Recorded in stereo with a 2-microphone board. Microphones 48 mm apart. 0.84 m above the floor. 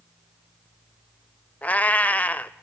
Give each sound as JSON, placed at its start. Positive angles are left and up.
{"t": 1.6, "sound": "a cat meowing", "side_deg": 30, "distance_m": 0.6}